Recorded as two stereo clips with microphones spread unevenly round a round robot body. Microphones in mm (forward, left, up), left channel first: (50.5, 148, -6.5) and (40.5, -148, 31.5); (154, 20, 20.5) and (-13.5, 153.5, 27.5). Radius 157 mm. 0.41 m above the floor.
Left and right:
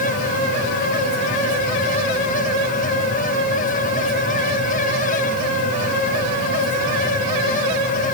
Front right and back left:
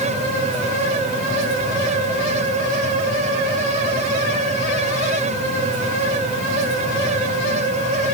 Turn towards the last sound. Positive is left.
No sound to turn to.